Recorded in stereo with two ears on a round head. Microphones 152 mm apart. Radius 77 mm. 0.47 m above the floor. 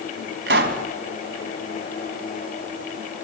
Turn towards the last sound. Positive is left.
turn(degrees=-70)  # may be behind; listen again after turning